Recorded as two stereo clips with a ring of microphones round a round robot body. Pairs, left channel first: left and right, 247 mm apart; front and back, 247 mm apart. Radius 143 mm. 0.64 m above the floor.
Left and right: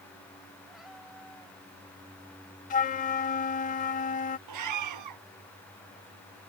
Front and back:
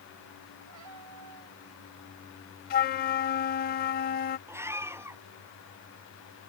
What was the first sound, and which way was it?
A cat meowing, straight behind.